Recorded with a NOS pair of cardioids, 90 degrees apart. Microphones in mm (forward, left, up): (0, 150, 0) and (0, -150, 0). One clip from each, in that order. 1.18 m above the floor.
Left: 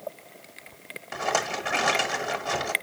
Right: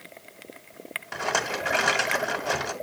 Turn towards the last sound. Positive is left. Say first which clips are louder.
# even
turn(degrees=-5)